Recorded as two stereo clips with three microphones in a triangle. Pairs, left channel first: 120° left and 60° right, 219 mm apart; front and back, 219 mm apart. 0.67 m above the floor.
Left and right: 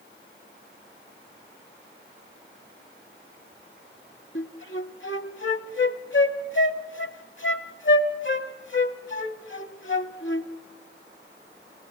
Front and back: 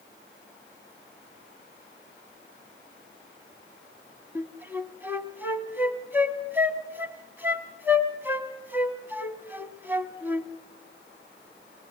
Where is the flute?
100° left, 0.9 m.